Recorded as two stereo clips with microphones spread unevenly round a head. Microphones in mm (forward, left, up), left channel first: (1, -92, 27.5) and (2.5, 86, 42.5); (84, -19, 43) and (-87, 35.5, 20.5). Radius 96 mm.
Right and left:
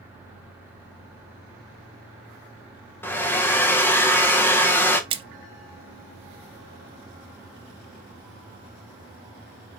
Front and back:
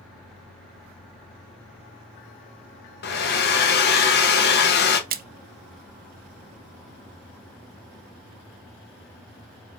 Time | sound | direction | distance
3.0 | a hair dryer | 10° right | 0.6 m
5.1 | a splash | 150° left | 0.5 m